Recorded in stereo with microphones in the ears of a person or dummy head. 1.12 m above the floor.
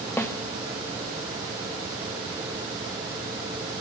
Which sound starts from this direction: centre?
A snare drum, at 0.2 s.